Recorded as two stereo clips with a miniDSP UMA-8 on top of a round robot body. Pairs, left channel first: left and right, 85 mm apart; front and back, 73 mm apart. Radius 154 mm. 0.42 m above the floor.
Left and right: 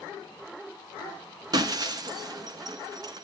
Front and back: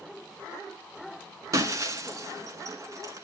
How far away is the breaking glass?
About 1.1 m.